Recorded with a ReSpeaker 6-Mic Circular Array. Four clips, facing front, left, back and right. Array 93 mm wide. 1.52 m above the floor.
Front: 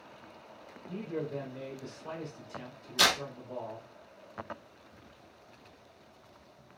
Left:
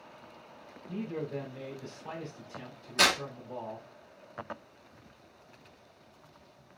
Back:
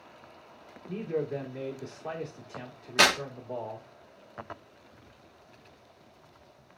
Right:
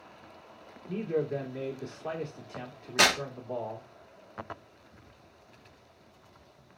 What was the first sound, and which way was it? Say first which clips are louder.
A man speaking: right 6 dB, back 5 dB; 125° right.